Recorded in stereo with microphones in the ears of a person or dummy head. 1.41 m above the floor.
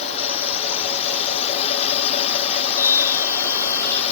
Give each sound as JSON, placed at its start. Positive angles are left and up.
{"t": 0.0, "sound": "a drone", "side_deg": 40}
{"t": 2.8, "sound": "a scream", "side_deg": 15}